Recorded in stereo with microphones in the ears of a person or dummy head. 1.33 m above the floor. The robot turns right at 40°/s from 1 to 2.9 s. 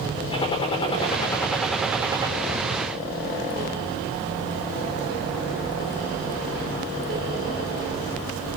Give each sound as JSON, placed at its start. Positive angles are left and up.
{"t": 0.3, "sound": "a gunshot", "azimuth_deg": 150, "distance_m": 4.5}